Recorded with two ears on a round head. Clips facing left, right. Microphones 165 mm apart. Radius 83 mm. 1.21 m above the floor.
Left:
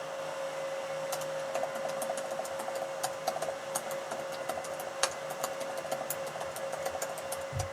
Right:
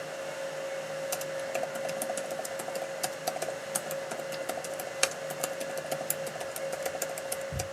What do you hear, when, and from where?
1.1 s typing on a keyboard: 30° right (ahead or behind), 0.6 m